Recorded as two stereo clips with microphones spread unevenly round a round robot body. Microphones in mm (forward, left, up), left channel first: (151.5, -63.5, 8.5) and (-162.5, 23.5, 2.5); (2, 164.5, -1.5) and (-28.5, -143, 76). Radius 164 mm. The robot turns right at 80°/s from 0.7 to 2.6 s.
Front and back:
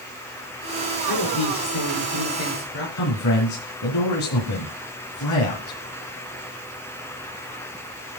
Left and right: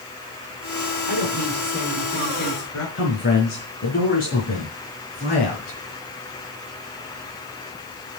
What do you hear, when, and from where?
1.1 s a woman speaking: 80° right, 5 m; by 2.9 s 40° left, 5 m
3.0 s a man speaking: 25° left, 4 m